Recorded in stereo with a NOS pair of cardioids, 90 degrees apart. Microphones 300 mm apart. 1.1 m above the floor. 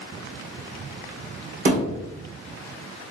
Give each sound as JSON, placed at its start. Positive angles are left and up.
{"t": 1.6, "sound": "a thud", "azimuth_deg": -55, "distance_m": 1.9}